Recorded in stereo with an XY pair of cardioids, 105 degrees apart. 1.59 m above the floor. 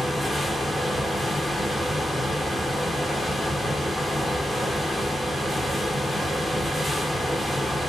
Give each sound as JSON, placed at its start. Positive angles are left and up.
{"t": 0.0, "sound": "a fan", "azimuth_deg": 10, "distance_m": 0.9}